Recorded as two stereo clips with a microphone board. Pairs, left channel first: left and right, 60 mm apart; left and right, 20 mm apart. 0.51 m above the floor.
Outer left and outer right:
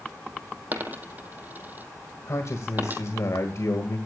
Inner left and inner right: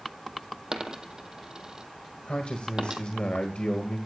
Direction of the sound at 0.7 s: 30° right (ahead or behind).